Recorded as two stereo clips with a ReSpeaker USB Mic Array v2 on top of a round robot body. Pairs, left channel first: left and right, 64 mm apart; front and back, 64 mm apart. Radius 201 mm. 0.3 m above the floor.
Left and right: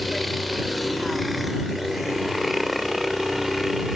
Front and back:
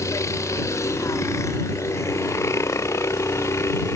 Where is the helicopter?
Straight ahead; by 4.0 s 5° right.